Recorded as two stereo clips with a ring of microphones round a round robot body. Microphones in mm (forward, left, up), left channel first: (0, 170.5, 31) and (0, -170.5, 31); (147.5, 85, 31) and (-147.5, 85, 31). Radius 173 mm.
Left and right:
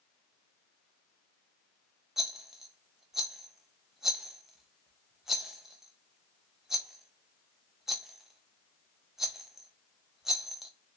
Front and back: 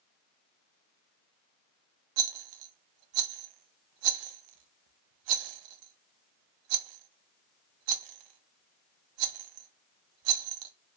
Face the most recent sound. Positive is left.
turn(degrees=180)